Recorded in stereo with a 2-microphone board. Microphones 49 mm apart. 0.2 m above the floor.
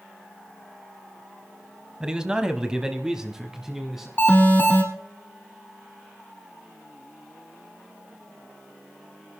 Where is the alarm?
40° left (ahead or behind), 6 m.